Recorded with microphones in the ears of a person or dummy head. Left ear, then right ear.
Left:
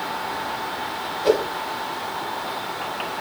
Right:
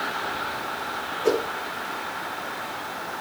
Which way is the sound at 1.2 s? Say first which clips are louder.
Left 4 dB; 40° right (ahead or behind).